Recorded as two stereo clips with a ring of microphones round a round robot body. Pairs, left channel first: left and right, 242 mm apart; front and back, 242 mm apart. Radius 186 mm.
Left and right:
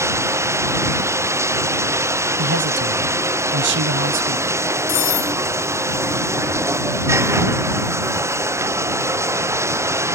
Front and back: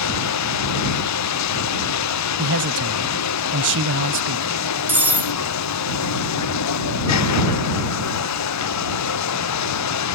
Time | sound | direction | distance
0.0 | running water | 10° right | ?
2.4 | a man speaking | 135° right | ?
4.9 | cutlery clinking | 95° left | ?